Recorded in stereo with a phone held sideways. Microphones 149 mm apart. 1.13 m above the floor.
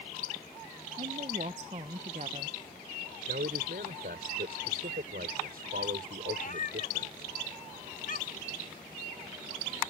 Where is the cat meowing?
60° left (ahead or behind).